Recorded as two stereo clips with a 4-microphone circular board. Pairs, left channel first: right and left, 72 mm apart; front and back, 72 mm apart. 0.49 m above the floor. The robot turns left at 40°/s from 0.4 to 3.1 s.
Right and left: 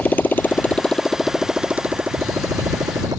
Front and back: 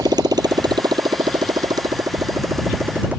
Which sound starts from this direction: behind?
A motorcycle, at 0.0 s.